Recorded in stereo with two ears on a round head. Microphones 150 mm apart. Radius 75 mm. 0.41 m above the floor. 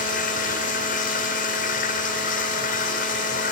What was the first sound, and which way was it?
Running water, 55° left (ahead or behind).